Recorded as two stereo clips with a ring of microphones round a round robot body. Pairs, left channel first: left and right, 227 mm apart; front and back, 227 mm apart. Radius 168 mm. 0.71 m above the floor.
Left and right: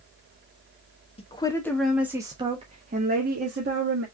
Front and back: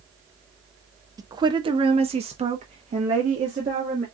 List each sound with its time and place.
1.2 s a woman speaking: 120° left, 1.0 m; by 4.0 s 120° right, 1.7 m